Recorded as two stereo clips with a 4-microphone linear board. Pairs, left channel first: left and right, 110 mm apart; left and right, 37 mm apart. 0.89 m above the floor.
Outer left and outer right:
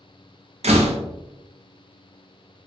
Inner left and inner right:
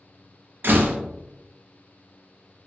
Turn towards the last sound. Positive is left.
turn(degrees=-75)  # may be behind; listen again after turning